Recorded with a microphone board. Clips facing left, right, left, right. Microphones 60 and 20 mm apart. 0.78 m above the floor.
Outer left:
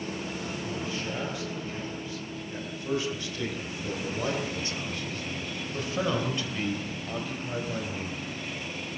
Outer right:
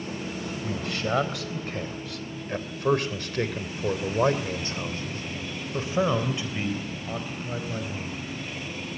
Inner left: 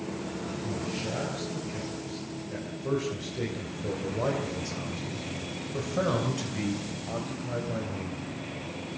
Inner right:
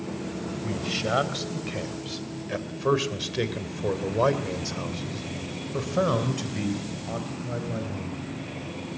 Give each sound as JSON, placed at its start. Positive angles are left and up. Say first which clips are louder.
{"t": 0.6, "sound": "a man speaking", "louder": "outer right 6 dB, inner right 7 dB", "side_deg": -80, "distance_m": 4.0}